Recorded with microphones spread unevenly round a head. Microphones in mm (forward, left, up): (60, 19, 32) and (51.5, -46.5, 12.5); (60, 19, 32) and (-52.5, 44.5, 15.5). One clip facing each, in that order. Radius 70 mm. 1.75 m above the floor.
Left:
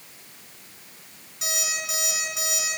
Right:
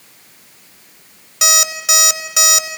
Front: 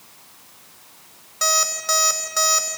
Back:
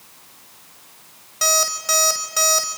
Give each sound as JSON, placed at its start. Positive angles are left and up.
{"t": 1.4, "sound": "an alarm clock", "azimuth_deg": -105, "distance_m": 5.5}